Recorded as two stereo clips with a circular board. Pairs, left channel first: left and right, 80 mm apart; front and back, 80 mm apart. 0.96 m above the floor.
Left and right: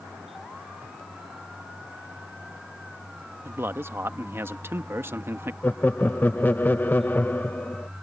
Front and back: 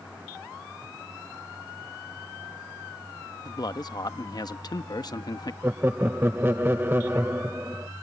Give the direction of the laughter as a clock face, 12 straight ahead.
7 o'clock.